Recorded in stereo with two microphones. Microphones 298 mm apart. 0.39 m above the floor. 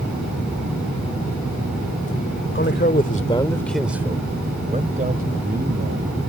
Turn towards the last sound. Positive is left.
turn(degrees=-40)  # may be behind; listen again after turning